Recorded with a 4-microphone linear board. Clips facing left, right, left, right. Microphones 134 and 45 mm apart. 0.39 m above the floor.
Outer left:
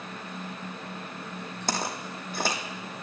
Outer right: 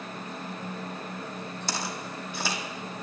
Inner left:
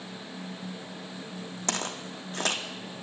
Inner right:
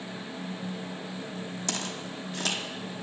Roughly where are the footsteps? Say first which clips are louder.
Outer left 5 dB, inner left 5 dB; left.